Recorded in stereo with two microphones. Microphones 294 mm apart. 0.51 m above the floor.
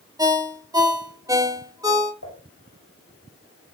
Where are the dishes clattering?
75° left (ahead or behind), 9 m.